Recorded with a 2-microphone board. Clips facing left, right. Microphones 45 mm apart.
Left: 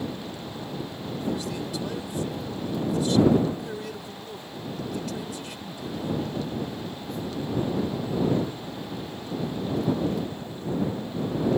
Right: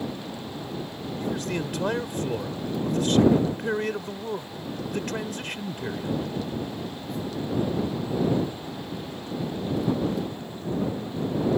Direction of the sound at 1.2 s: 60° right (ahead or behind).